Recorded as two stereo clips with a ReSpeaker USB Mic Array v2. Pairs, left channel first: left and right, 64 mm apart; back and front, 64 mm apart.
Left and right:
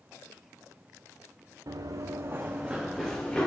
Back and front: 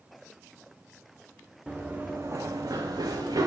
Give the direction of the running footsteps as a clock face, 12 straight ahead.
3 o'clock.